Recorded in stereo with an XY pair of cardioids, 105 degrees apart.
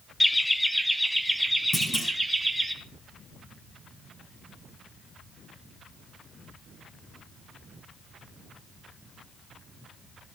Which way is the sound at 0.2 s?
10° left.